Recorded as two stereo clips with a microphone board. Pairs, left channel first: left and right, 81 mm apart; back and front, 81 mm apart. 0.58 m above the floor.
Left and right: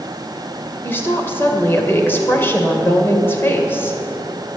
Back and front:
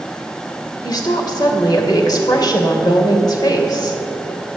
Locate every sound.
0.8 s a woman speaking: 150° left, 2.5 m